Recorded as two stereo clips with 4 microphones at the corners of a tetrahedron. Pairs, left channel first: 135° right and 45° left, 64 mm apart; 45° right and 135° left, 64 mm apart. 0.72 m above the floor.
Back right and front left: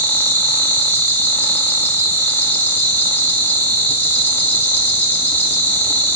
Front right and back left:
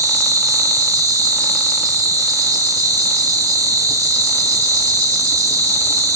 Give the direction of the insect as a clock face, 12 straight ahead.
7 o'clock.